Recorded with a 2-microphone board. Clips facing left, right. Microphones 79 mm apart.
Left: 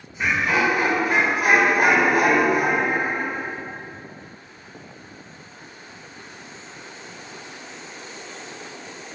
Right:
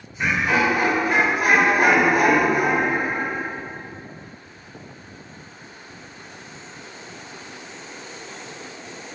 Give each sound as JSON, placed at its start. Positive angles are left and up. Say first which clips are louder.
{"t": 0.2, "sound": "laughter", "louder": "right 1 dB", "side_deg": 0, "distance_m": 1.1}